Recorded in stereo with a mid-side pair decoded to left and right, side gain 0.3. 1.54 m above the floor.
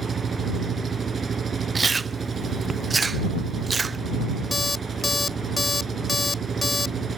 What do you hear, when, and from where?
0.0 s an engine running: 60° right
1.8 s chewing: 40° right
4.5 s an alarm clock: 30° left